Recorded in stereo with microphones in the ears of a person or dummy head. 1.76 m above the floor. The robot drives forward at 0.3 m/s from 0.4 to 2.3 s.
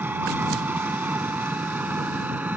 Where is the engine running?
15° right (ahead or behind).